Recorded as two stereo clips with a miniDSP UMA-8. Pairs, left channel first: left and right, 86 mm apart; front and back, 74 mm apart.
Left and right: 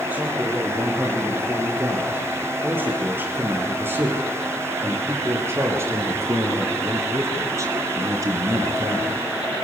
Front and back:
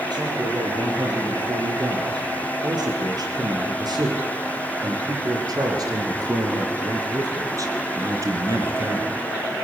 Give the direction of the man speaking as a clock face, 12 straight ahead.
5 o'clock.